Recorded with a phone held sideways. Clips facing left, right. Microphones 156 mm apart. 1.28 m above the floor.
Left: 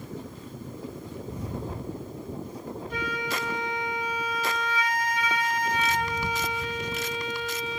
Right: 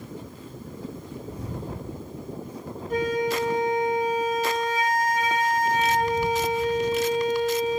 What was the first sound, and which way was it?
A flute, 45° right (ahead or behind).